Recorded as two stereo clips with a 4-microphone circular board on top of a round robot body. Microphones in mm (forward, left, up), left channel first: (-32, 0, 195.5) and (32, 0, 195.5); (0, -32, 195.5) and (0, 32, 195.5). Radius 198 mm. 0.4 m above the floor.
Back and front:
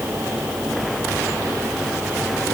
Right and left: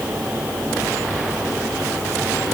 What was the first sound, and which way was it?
Only background noise.